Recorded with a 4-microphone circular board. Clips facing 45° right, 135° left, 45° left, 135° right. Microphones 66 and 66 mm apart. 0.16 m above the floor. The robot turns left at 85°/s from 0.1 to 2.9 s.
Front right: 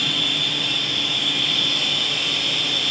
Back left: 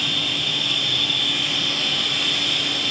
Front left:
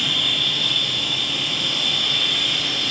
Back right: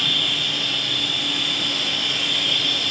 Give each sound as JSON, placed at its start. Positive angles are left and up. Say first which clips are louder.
{"t": 0.0, "sound": "an insect", "louder": "front right 1 dB, even", "azimuth_deg": -30, "distance_m": 1.0}